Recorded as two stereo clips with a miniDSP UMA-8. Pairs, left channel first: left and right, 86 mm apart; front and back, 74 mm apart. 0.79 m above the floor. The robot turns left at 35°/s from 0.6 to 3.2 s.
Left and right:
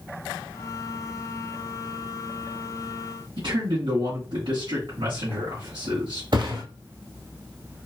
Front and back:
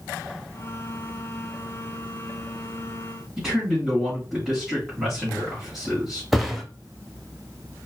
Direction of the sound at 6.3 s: 95° right.